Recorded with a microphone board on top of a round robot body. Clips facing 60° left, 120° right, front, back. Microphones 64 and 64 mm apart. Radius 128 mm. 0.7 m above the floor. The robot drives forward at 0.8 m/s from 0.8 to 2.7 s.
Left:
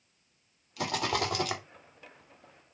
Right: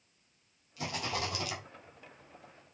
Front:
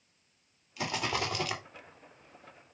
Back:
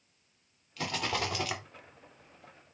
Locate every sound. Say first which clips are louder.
0.8 s a rattle: left 6 dB, even; 80° left, 2.5 m; by 1.6 s 95° left, 2.5 m